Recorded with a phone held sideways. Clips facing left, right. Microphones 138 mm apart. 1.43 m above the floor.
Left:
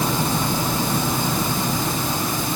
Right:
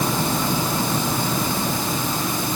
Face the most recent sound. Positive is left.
No sound to turn to.